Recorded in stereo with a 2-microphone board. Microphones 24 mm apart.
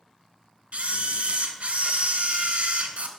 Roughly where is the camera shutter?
Right.